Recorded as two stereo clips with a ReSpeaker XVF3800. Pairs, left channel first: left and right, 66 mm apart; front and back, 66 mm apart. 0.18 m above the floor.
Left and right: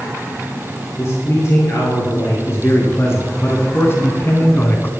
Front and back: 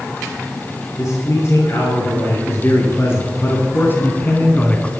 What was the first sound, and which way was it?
A man speaking, 45° left.